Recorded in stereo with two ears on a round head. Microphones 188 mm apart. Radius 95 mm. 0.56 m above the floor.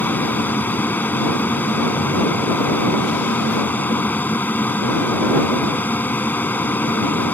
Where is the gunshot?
I don't hear a gunshot.